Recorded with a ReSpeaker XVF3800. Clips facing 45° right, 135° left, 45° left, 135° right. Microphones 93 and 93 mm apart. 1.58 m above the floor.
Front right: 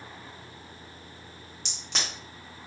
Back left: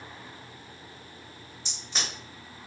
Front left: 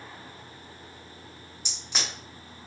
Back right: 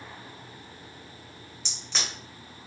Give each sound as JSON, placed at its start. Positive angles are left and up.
{"t": 1.6, "sound": "a crack", "azimuth_deg": -35, "distance_m": 1.2}